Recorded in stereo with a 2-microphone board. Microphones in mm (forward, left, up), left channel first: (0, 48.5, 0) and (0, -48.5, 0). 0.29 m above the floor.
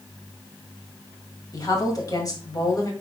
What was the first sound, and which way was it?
A woman speaking, 40° left (ahead or behind).